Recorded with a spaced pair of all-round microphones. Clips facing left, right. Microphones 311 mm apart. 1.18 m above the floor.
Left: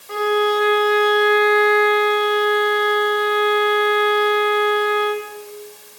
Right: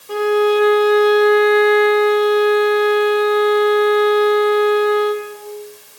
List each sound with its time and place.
0.1 s a violin: 40° right (ahead or behind), 1.1 m